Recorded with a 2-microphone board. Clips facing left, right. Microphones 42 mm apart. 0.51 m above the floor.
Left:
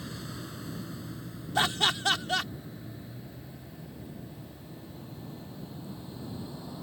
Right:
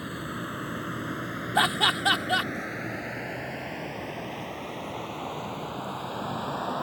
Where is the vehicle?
30° right (ahead or behind); by 6.8 s 65° right (ahead or behind).